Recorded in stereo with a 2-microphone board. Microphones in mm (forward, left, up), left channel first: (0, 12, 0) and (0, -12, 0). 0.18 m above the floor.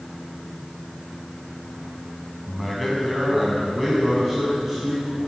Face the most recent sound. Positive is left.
turn(degrees=-10)  # may be behind; listen again after turning